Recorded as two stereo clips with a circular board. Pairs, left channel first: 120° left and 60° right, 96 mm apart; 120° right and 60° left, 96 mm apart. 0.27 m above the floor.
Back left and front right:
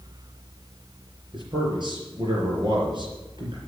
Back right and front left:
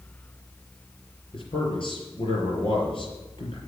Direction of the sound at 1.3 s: 95° right.